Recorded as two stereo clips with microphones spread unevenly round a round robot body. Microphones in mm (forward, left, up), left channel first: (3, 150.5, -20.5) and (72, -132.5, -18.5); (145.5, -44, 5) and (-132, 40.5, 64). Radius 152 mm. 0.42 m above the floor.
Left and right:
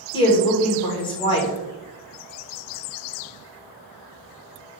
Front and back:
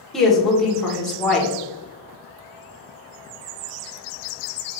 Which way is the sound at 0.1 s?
45° left.